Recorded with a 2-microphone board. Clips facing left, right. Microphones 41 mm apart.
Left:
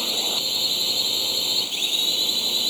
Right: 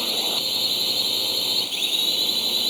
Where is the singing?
I don't hear singing.